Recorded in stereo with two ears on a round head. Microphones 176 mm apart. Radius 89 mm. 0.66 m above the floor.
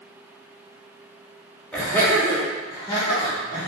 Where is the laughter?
5° left (ahead or behind), 1.6 m; by 3.7 s 25° left (ahead or behind), 1.6 m.